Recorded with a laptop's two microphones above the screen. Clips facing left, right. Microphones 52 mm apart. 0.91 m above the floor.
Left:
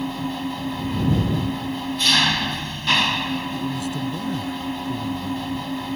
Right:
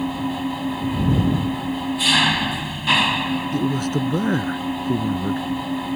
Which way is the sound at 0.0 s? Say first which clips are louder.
Right 3 dB; 10° right (ahead or behind).